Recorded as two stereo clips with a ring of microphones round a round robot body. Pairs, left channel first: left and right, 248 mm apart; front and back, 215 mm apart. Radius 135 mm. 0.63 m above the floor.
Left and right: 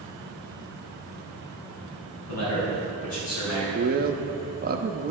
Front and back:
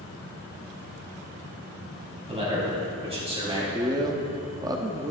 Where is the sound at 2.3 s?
115° left, 3.5 m.